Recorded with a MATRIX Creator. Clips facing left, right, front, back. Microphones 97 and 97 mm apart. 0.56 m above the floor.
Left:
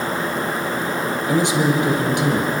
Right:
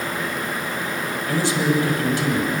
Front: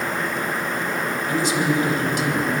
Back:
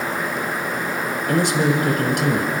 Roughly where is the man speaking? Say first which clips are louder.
Left 2 dB, back 3 dB; behind.